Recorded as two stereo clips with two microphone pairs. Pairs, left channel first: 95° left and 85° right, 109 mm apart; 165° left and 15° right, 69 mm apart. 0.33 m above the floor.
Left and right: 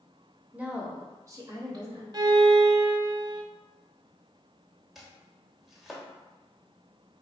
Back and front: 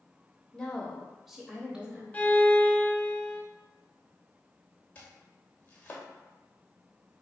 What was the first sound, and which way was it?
A woman speaking, 140° right.